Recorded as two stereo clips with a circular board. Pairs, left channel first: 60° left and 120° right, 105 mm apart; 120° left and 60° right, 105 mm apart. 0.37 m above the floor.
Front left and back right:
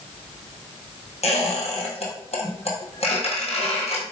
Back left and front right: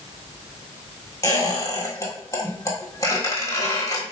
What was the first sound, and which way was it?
A squeak, 60° left.